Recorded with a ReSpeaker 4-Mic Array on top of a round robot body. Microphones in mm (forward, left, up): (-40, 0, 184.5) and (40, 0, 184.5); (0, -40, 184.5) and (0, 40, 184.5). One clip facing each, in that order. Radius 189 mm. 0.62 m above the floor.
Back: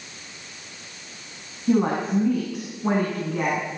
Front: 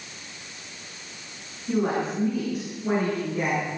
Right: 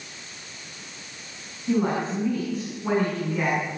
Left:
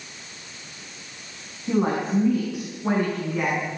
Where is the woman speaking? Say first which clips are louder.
Back 4 dB, left 1 dB; 165° left, 8.5 m; by 3.7 s 175° left, 11 m.